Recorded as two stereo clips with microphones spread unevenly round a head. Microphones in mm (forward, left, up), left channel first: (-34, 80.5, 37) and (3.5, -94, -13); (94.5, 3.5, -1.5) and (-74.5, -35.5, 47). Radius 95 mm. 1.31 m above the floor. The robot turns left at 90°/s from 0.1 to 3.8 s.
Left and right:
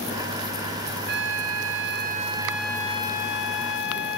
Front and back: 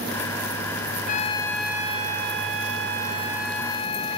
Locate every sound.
1.1 s a trumpet: 35° right; by 4.2 s 80° left